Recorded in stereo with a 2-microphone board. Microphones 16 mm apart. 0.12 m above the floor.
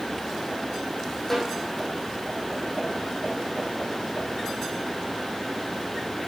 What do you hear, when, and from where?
1.3 s a snare drum: 20° left (ahead or behind), 4.5 m